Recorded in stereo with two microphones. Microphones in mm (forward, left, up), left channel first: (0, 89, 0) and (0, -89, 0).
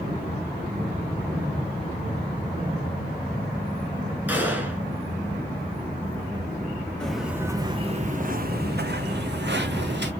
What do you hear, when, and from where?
4.3 s a gunshot: 10° right (ahead or behind), 1.9 m
7.0 s footsteps: 5° left (ahead or behind), 1.1 m; by 10.1 s 85° right, 2 m